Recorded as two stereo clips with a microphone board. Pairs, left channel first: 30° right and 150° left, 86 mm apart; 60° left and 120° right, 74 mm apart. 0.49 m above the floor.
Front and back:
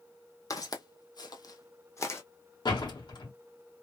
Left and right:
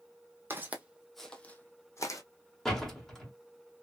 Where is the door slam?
25° right, 1.3 m.